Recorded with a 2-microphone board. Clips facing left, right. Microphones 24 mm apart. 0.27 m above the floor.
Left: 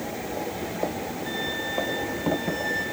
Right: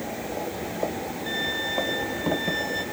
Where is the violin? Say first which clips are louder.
Right 3 dB; 5° right (ahead or behind), 4 m.